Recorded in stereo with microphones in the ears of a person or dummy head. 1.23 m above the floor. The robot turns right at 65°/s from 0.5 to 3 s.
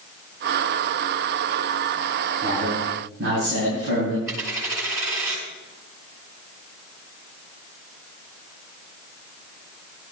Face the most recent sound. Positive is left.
turn(degrees=-20)  # may be behind; listen again after turning